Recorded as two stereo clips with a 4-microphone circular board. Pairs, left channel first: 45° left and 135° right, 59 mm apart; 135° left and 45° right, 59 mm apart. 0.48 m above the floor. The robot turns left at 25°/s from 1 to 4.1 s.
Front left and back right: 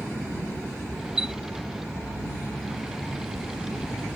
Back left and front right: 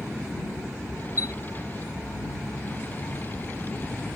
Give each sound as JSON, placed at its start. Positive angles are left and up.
{"t": 1.2, "sound": "a chime", "azimuth_deg": 150}